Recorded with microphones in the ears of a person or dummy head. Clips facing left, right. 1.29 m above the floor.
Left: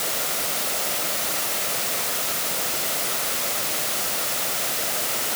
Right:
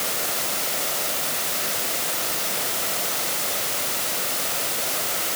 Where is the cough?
I don't hear a cough.